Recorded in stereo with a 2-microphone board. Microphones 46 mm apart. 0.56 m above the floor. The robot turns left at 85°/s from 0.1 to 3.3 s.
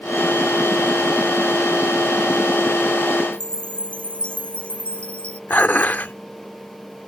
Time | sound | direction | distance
3.3 | a chime | 25° left (ahead or behind) | ?
5.5 | dishes clattering | 40° left (ahead or behind) | ?